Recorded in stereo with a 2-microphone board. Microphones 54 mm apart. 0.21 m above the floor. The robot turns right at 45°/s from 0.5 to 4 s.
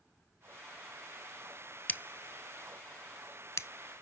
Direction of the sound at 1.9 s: 30° left (ahead or behind).